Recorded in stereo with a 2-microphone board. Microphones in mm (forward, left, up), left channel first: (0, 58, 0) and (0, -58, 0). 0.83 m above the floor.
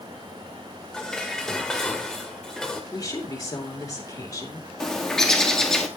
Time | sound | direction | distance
0.9 | dishes clattering | 5° left (ahead or behind) | 1.7 m
2.9 | a woman speaking | 30° left (ahead or behind) | 3 m
4.8 | a bird | 5° left (ahead or behind) | 1.8 m